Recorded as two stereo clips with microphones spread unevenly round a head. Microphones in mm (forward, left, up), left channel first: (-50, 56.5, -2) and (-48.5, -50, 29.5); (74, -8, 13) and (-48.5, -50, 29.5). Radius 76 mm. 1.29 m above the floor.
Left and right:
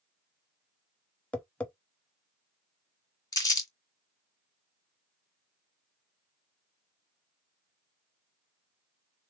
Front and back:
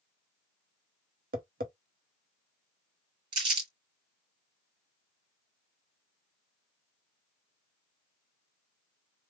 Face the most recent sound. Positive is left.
turn(degrees=150)